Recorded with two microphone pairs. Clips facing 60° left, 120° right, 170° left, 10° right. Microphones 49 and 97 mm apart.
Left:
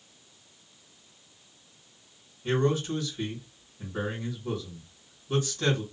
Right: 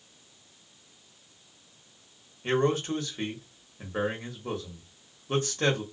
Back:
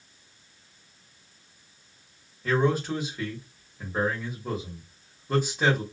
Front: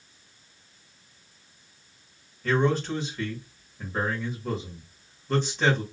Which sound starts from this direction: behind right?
A man speaking, at 2.4 s.